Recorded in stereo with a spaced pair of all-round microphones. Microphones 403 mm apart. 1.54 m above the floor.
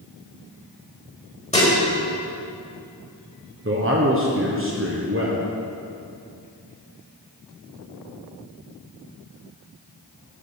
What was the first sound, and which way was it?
Dishes clattering, 15° left (ahead or behind).